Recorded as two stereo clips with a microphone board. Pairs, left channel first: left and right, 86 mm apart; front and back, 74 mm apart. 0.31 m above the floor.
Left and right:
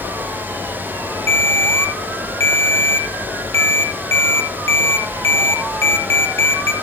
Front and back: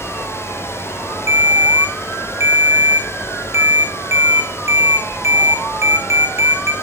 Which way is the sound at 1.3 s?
140° left.